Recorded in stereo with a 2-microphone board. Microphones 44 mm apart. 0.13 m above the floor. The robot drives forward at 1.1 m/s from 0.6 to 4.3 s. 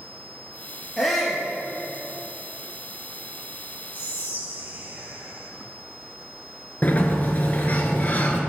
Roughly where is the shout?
Centre.